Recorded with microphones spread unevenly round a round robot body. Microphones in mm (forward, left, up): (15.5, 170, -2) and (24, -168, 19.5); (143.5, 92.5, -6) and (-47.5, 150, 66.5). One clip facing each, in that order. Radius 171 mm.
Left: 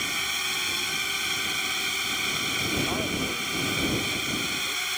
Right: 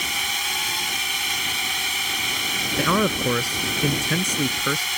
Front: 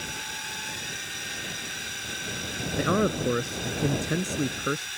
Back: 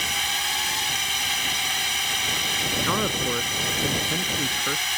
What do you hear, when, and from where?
0.0 s a drone: 165° right
2.8 s a man speaking: 90° right